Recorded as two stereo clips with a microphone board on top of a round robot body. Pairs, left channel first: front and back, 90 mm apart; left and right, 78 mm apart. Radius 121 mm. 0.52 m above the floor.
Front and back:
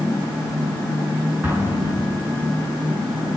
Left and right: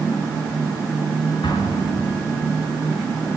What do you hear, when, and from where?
1.4 s an explosion: 110° left, 4.5 m